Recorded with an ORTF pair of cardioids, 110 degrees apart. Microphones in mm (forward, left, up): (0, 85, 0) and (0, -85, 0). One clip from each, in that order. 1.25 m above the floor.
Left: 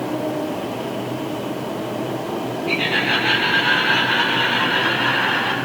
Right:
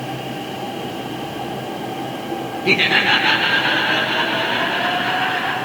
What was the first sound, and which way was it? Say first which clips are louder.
Laughter: right 5 dB; 60° right.